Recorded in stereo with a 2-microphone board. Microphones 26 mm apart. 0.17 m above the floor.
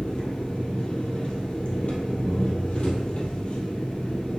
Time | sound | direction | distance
0.0 | an engine running | 40° left (ahead or behind) | 2.5 m